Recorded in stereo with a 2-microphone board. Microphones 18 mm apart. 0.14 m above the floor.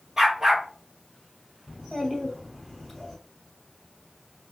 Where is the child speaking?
Centre (ahead or behind), 3 m.